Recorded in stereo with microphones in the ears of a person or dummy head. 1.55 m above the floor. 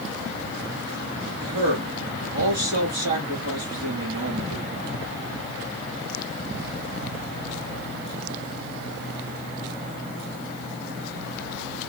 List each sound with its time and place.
1.4 s a man speaking: 55° right (ahead or behind), 2.0 m